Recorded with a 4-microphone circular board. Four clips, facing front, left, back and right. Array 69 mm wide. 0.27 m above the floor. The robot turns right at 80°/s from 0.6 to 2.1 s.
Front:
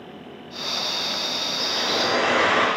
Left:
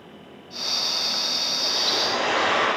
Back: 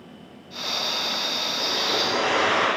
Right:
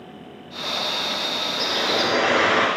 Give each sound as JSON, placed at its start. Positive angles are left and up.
{"t": 1.6, "sound": "a bird", "azimuth_deg": -105, "distance_m": 2.5}